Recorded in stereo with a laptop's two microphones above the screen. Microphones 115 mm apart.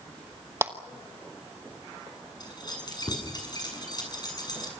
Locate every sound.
0.6 s a clap: 20° right (ahead or behind), 1.1 m
2.4 s keys jangling: 40° left (ahead or behind), 7.5 m